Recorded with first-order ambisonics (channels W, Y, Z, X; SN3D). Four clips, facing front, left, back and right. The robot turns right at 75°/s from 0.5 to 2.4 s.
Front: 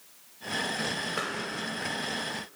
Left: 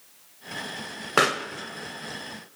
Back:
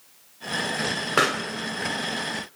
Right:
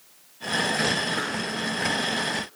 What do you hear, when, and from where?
1.2 s a pop: 130° left, 1.1 m; by 1.5 s 150° left, 1.1 m